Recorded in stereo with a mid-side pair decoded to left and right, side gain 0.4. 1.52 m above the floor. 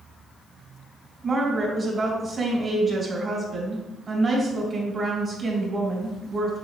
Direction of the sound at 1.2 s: 40° right.